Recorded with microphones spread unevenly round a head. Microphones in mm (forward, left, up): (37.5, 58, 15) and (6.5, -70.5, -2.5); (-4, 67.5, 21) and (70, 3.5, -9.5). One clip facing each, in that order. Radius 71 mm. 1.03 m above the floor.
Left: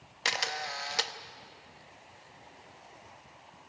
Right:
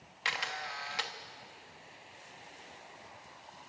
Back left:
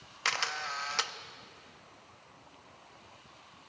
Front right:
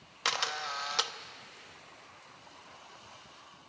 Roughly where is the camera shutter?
Ahead left.